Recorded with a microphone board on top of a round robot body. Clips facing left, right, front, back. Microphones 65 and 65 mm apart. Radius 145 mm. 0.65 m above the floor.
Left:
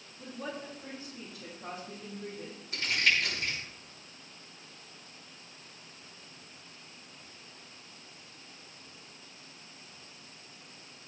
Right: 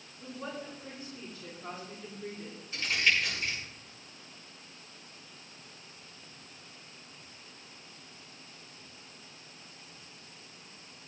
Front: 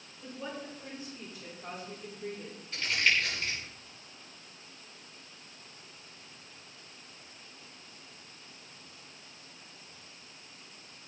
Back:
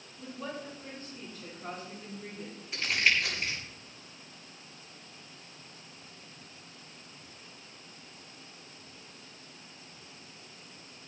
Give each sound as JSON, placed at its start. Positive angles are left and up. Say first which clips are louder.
{"t": 0.2, "sound": "a woman speaking", "louder": "even, back 1 dB", "azimuth_deg": 75, "distance_m": 7.5}
{"t": 2.7, "sound": "crumpling", "louder": "even, back 1 dB", "azimuth_deg": 110, "distance_m": 9.0}